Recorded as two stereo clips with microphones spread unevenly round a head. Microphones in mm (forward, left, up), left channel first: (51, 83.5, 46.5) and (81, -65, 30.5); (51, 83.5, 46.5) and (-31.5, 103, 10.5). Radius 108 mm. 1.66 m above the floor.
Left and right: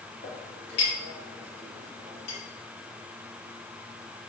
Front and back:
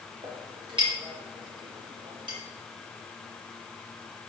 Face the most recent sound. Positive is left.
turn(degrees=135)